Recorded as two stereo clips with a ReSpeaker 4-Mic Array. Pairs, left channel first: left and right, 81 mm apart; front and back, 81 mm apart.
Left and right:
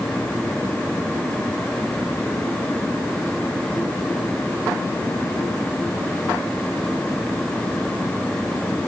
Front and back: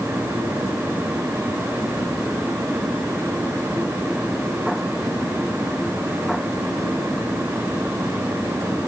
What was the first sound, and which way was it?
Only background noise.